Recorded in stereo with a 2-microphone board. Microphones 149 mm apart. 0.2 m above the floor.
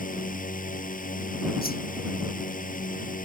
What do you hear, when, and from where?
0.0 s a drone: 60° left (ahead or behind)
1.6 s a whoosh: 75° left (ahead or behind)